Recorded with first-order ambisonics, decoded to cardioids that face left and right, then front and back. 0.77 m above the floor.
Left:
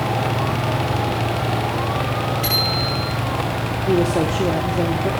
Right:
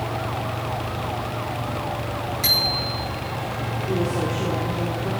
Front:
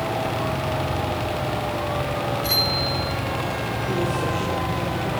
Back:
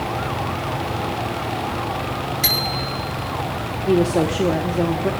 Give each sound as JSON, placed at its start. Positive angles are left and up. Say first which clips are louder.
{"t": 2.4, "sound": "a bicycle bell", "louder": "right 1 dB, back 1 dB", "azimuth_deg": -170, "distance_m": 8.5}
{"t": 3.9, "sound": "a woman speaking", "louder": "left 7 dB, back 8 dB", "azimuth_deg": 145, "distance_m": 1.3}